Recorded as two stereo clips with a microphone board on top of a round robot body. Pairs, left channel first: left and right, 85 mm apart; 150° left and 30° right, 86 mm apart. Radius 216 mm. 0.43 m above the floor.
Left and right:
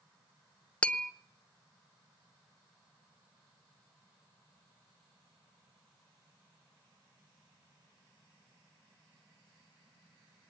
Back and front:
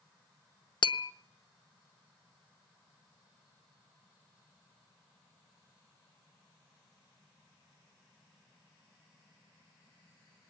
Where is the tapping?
165° left, 0.9 m.